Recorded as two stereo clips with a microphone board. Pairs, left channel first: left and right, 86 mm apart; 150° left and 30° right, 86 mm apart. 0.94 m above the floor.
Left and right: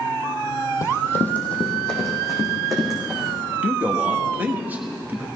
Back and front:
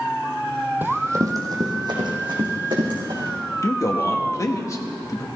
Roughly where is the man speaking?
Behind.